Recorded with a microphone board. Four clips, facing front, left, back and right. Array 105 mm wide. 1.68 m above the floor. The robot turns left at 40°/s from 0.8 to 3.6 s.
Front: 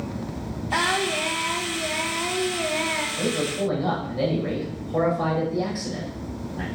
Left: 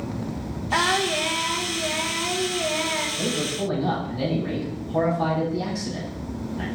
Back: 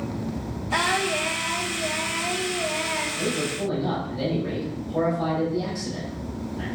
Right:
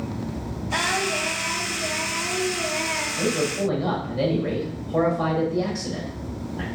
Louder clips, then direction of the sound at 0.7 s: Left 3 dB, even; 65° left.